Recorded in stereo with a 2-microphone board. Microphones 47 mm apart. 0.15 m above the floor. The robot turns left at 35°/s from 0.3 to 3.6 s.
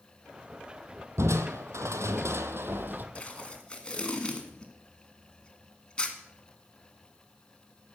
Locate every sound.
1.2 s crushing: 75° right, 0.8 m; by 3.0 s 140° right, 0.8 m
3.1 s tape being pulled: 25° left (ahead or behind), 1.5 m; by 6.2 s 20° left (ahead or behind), 1.5 m